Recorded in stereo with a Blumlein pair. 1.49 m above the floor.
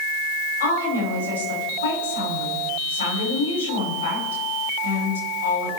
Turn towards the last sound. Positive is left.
turn(degrees=65)